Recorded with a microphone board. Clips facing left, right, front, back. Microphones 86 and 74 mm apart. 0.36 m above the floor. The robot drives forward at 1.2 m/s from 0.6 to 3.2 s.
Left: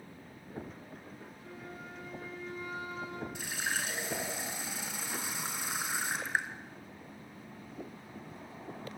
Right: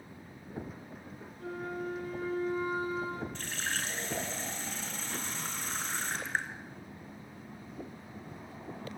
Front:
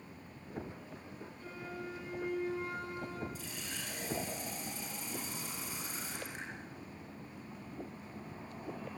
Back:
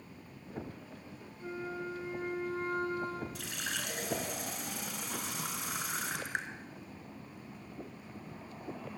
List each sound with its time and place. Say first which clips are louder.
1.4 s a flute: right 12 dB, back 6 dB; 115° right, 3.5 m; by 3.2 s 140° right, 5 m
3.4 s a running tap: left 1 dB, back 5 dB; 170° left, 3.5 m